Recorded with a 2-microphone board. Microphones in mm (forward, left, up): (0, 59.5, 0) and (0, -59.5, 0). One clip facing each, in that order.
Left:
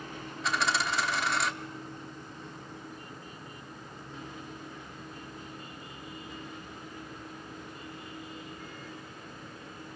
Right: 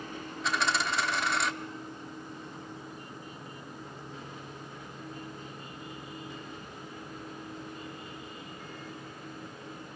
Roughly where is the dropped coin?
Centre.